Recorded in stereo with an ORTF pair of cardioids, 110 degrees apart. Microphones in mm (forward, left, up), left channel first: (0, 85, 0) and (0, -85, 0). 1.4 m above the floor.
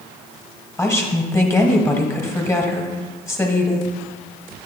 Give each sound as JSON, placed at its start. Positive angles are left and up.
{"t": 0.8, "sound": "a woman speaking", "azimuth_deg": 15, "distance_m": 1.4}